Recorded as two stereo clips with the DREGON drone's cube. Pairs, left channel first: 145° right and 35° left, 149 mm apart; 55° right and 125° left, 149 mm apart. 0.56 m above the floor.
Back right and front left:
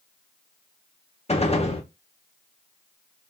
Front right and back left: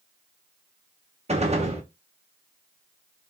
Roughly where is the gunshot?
Behind.